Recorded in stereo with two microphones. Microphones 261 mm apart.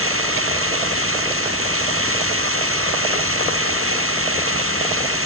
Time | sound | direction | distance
0.0 | running water | 60° right (ahead or behind) | ?